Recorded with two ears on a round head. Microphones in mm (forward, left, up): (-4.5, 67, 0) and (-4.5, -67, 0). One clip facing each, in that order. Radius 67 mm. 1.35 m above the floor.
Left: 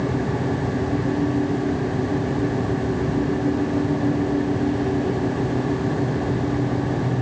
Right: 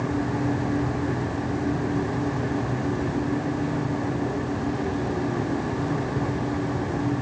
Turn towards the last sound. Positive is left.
No sound to turn to.